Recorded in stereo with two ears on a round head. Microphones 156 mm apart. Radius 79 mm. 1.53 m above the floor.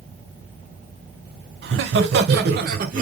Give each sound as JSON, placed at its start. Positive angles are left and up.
{"t": 1.6, "sound": "laughter", "side_deg": -70, "distance_m": 0.9}